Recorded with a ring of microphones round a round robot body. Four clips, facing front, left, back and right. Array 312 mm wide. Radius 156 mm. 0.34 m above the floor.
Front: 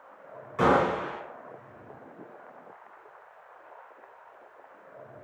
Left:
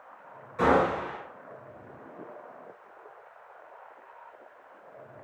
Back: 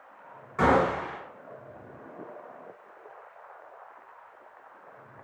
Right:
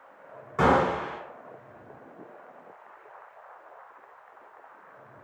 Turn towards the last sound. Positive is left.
turn(degrees=-100)